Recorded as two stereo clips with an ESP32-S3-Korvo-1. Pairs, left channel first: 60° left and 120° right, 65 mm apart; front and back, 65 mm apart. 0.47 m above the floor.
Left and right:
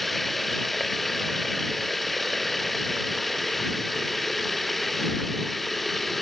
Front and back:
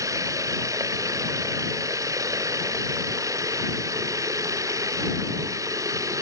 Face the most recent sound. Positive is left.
turn(degrees=145)